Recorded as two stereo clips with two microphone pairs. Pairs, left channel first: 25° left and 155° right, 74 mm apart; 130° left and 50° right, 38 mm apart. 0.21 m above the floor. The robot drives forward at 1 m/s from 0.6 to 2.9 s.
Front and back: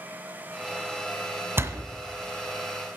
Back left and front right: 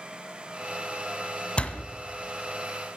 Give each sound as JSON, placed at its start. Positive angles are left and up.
{"t": 1.6, "sound": "a door slam", "azimuth_deg": 170, "distance_m": 1.2}